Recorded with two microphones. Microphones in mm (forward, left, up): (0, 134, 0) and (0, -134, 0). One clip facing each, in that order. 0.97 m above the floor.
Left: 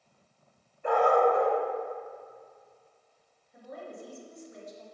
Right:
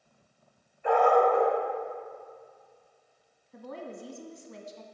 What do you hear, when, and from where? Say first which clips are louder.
0.8 s a dog barking: right 1 dB; 50° left (ahead or behind), 2 m
3.5 s a woman speaking: right 3 dB; 75° right (ahead or behind), 1.3 m